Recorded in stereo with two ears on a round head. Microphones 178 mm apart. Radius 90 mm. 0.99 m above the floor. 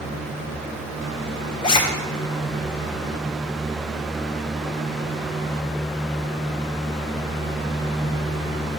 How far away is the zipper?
About 0.6 m.